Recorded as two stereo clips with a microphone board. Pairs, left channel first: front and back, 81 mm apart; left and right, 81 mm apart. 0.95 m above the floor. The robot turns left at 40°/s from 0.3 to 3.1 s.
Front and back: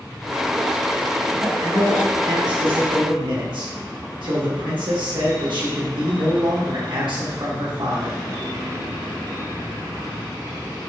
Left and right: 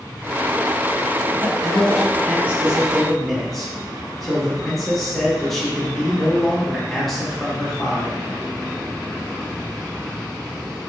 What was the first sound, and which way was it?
A man speaking, 115° right.